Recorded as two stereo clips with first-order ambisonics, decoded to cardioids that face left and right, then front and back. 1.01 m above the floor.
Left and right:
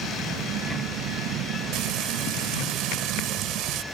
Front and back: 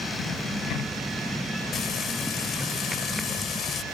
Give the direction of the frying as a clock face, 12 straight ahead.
2 o'clock.